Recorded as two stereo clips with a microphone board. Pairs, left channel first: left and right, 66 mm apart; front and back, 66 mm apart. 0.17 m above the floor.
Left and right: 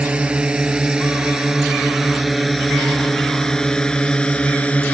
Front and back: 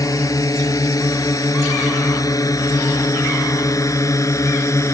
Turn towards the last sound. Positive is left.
turn(degrees=25)